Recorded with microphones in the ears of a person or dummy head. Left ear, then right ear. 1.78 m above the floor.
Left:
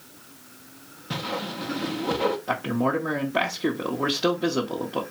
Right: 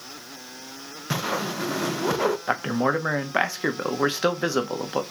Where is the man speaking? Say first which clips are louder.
Right 2 dB; 60° right (ahead or behind), 0.9 m.